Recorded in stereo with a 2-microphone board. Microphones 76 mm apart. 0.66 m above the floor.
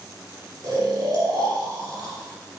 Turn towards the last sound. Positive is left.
turn(degrees=-70)  # may be behind; listen again after turning